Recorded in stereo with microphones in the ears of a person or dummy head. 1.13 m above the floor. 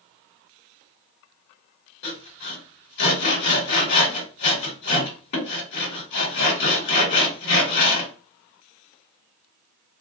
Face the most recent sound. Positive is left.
turn(degrees=65)  # may be behind; listen again after turning